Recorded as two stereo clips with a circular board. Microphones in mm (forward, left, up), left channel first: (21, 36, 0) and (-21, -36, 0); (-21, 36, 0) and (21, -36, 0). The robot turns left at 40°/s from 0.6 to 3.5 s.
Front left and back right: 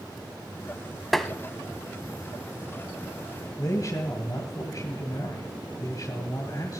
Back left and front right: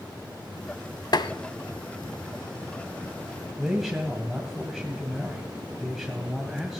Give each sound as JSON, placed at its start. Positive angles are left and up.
{"t": 1.1, "sound": "tapping", "azimuth_deg": 150, "distance_m": 0.8}
{"t": 3.6, "sound": "a man speaking", "azimuth_deg": 30, "distance_m": 2.0}